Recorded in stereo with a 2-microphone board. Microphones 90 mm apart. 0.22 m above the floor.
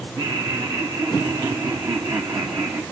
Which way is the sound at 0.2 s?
50° right (ahead or behind).